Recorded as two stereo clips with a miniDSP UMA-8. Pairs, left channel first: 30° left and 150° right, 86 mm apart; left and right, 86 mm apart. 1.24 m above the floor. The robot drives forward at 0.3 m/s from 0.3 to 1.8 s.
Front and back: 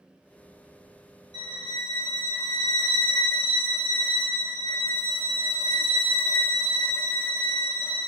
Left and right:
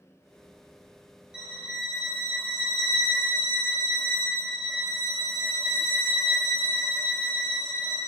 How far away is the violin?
About 0.5 m.